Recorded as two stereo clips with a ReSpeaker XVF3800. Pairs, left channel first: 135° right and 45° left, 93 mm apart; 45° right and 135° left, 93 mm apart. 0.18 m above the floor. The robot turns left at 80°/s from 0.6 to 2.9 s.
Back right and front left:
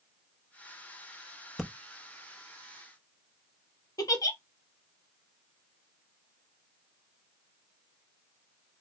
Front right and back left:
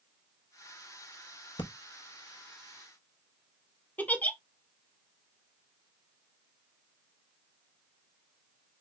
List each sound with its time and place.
1.6 s breathing: 45° right, 0.6 m; by 1.7 s 50° right, 0.6 m
4.0 s a giggle: 110° right, 0.6 m